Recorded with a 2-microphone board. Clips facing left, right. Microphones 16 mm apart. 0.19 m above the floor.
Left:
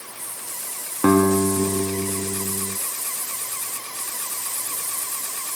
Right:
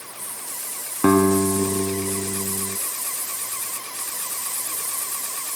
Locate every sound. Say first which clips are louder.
1.0 s a guitar: even; 35° right (ahead or behind), 1.5 m